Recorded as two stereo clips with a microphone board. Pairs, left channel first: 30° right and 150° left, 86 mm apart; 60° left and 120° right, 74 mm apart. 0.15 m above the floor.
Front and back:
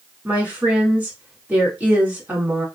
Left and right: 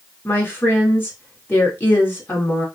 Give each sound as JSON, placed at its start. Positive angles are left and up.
{"t": 0.2, "sound": "a woman speaking", "azimuth_deg": 95, "distance_m": 1.6}